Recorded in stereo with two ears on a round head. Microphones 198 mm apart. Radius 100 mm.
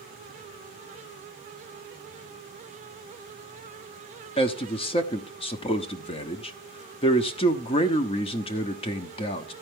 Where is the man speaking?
25° left (ahead or behind), 0.8 m.